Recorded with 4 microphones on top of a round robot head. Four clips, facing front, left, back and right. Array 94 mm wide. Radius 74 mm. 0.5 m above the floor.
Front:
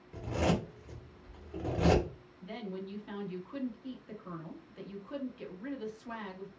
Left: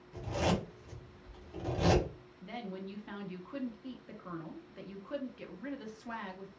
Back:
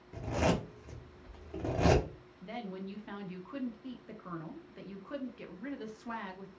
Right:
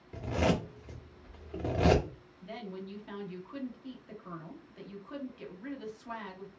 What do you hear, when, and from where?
0.1 s a zipper: 120° right, 0.9 m
2.4 s a woman speaking: 150° left, 0.9 m